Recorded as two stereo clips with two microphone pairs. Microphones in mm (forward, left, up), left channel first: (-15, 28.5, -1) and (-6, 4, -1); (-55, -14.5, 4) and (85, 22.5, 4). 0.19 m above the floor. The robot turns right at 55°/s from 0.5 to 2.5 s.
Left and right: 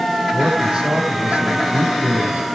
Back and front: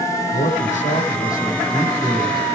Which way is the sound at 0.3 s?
145° right.